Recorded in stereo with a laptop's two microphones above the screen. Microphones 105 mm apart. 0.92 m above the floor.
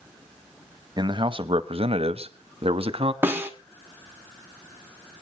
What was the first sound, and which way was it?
A man speaking, 40° right (ahead or behind).